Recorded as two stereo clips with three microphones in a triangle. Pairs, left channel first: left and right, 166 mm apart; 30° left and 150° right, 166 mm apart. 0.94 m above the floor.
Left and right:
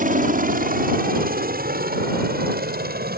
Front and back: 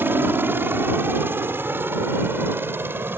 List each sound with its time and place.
0.0 s a helicopter: 75° right